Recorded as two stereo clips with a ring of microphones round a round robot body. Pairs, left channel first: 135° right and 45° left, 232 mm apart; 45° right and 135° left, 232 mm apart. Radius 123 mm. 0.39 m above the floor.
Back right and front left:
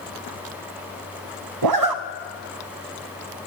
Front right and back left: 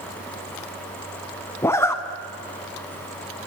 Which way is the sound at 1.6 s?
35° left.